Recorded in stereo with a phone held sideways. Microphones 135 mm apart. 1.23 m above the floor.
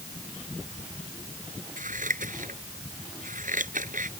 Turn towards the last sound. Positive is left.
turn(degrees=-80)